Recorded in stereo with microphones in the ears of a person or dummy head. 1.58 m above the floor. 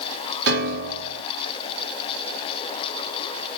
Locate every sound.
0.5 s a piano: 70° right (ahead or behind), 0.6 m